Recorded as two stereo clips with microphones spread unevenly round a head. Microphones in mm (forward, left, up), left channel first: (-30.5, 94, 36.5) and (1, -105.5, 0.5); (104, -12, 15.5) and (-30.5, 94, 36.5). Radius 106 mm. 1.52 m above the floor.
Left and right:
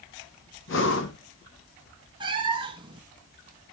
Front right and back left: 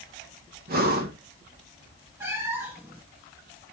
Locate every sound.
0.7 s breathing: 115° left, 1.6 m
2.2 s a cat meowing: 150° right, 0.9 m